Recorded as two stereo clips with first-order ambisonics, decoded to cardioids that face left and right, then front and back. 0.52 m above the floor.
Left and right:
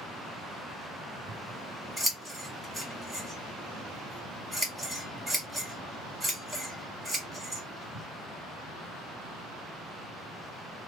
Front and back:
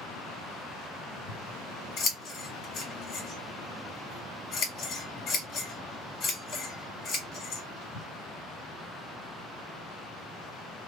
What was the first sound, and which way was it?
Scissors, 10° right.